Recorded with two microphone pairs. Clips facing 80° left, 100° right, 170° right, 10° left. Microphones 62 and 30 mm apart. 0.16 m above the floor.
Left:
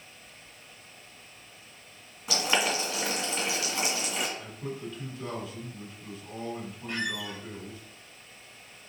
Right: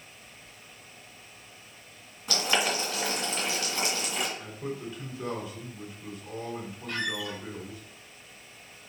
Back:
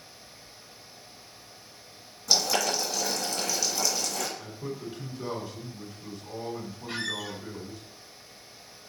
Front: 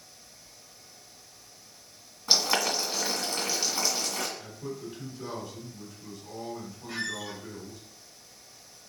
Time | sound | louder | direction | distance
2.3 | boiling | even, even | 15° left | 1.7 m
4.4 | a man speaking | right 1 dB, back 1 dB | 175° right | 1.7 m
6.9 | a squeak | right 1 dB, back 1 dB | 145° left | 1.0 m